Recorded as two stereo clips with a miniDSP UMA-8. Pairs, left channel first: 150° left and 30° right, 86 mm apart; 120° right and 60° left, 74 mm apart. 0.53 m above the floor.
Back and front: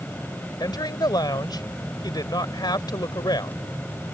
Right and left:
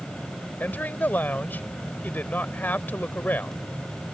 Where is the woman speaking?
175° left.